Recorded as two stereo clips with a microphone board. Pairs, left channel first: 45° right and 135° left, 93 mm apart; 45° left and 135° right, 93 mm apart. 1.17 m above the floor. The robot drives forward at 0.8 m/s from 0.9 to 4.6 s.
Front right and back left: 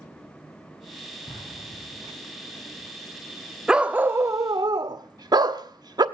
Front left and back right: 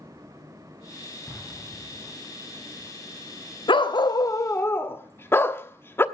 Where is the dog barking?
55° left, 1.1 m; by 6.0 s 105° left, 0.9 m.